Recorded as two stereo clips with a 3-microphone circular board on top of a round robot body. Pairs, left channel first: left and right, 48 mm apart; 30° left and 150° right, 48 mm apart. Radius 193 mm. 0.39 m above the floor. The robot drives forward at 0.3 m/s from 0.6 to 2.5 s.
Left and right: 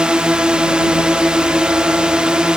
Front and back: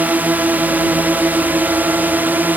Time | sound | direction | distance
0.0 | a drone | 145° right | ?